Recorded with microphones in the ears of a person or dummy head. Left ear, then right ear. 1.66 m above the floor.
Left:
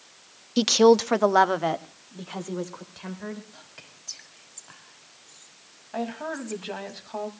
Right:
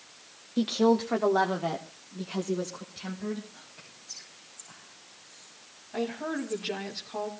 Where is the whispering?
80° left, 4 m.